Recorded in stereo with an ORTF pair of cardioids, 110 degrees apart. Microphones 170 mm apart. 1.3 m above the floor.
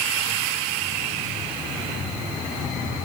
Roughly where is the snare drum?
No snare drum in this recording.